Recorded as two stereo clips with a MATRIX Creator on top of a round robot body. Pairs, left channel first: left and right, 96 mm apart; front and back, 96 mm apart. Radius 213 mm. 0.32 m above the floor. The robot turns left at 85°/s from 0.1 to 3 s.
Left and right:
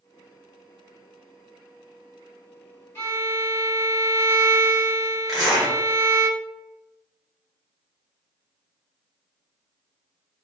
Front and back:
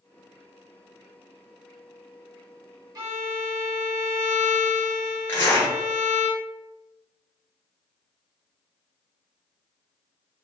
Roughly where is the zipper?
Ahead.